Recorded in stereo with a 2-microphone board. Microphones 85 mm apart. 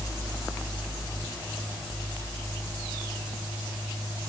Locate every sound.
Only background noise.